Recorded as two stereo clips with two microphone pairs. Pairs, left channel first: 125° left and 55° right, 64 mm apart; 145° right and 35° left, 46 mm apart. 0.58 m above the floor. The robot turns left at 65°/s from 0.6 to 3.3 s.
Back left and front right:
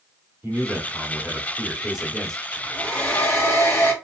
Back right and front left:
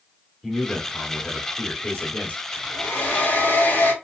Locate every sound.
0.4 s a man speaking: 50° right, 1.4 m; by 2.4 s 165° right, 1.4 m
2.5 s a hair dryer: 135° right, 1.7 m; by 3.9 s 175° left, 1.7 m